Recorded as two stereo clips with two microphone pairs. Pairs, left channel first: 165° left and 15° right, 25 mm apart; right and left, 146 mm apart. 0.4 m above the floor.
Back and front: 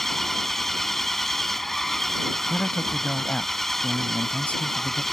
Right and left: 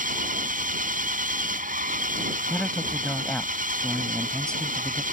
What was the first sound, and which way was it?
An engine running, 90° left.